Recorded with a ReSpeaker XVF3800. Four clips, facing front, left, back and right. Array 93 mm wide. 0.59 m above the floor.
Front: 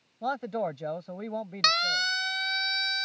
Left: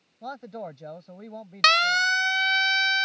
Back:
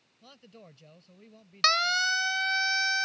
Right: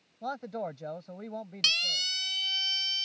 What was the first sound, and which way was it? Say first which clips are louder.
A man speaking: right 1 dB, front 23 dB; 5° right.